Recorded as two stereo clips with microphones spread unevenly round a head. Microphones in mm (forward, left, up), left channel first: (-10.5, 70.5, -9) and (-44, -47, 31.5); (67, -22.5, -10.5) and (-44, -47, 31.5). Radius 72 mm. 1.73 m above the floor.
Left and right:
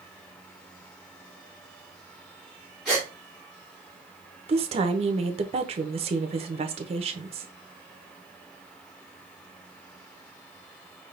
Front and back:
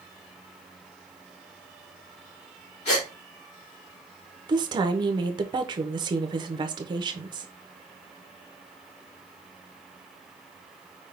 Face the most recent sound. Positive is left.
turn(degrees=-130)